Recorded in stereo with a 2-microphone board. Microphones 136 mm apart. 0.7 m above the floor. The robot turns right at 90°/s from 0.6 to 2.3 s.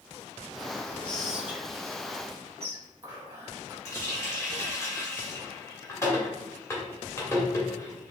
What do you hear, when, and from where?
1.0 s whispering: 10° left (ahead or behind), 1.0 m; by 3.8 s 25° right (ahead or behind), 1.0 m
3.9 s a running tap: 20° left (ahead or behind), 1.6 m